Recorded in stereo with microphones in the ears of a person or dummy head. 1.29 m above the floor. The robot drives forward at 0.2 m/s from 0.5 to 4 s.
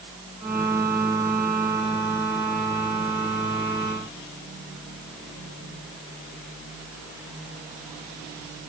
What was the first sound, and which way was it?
Only background noise.